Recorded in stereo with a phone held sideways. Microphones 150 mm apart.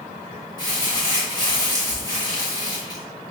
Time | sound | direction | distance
0.6 | crumpling | 30° left (ahead or behind) | 1.8 m